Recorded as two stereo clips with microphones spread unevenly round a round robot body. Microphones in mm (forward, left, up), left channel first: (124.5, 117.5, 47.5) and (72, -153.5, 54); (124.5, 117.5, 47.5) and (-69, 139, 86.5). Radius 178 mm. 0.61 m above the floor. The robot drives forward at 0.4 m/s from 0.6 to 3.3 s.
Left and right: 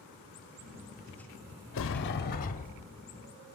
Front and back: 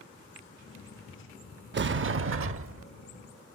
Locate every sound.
1.7 s a sliding door: 130° left, 0.5 m; by 2.9 s 150° left, 0.9 m